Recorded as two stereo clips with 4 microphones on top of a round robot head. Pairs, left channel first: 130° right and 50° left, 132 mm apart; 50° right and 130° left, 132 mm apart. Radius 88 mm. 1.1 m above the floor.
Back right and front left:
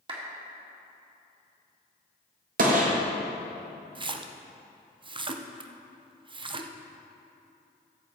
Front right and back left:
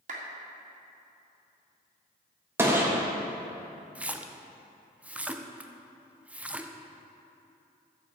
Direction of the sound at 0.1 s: 100° left.